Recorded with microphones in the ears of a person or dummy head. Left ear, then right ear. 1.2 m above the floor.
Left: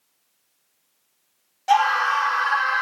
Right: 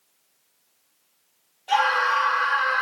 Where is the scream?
70° left (ahead or behind), 0.9 m.